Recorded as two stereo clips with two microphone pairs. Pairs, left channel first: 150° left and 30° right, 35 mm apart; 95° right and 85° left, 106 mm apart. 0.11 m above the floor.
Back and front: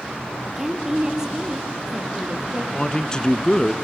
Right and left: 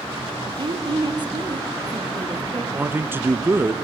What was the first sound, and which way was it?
A woman speaking, 55° left.